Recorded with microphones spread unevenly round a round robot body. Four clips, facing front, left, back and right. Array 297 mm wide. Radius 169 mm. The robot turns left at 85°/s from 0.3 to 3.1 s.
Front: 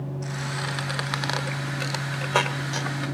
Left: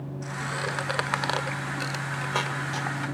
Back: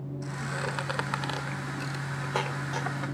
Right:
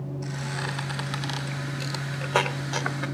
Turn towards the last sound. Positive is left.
turn(degrees=-95)